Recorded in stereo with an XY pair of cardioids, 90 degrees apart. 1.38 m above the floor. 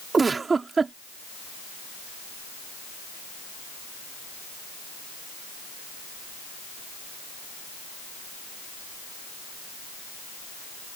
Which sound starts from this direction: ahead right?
A giggle, at 0.1 s.